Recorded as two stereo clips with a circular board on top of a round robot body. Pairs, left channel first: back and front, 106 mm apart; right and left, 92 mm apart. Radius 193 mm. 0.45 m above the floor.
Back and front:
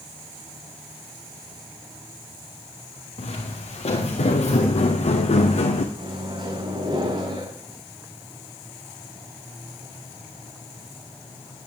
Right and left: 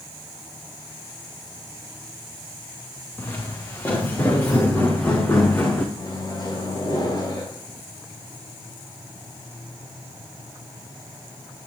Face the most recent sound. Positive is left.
turn(degrees=-45)